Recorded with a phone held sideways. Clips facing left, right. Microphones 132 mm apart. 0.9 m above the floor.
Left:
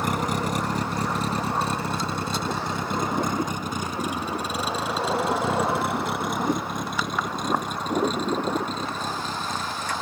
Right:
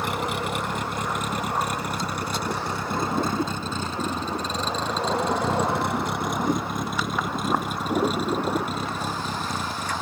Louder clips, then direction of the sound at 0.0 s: Left 2 dB; 45° left (ahead or behind).